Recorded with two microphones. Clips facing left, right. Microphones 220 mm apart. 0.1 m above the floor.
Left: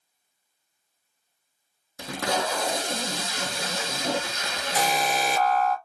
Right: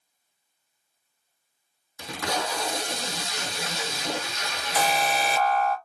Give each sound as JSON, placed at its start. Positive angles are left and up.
{"t": 2.0, "sound": "tape being pulled", "side_deg": 55, "distance_m": 1.0}
{"t": 4.8, "sound": "an alarm", "side_deg": 40, "distance_m": 2.0}